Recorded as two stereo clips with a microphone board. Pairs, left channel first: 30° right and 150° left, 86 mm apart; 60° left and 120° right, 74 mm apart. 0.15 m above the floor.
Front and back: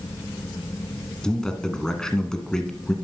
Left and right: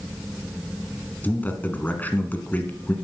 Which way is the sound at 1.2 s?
40° left.